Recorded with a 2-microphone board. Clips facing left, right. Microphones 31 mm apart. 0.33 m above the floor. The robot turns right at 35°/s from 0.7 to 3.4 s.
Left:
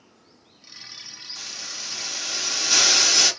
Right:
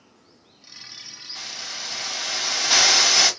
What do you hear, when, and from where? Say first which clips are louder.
1.4 s a hiss: right 3 dB; 105° right, 2 m; by 3.3 s 40° right, 2 m